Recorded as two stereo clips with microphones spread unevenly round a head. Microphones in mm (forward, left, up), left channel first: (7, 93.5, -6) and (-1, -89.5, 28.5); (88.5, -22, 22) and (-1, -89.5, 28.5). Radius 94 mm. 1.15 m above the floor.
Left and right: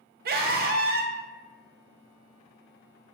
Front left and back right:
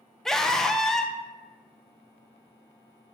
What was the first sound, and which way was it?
A scream, 50° right.